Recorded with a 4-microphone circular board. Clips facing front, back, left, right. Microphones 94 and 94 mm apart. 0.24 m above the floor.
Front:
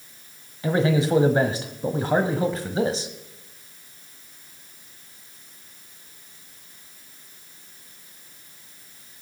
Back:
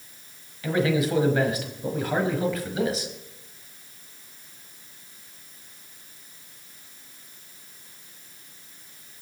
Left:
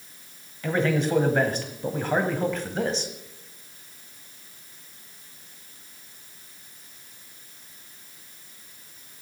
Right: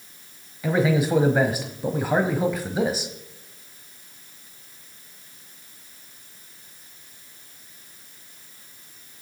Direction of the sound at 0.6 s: 15° right.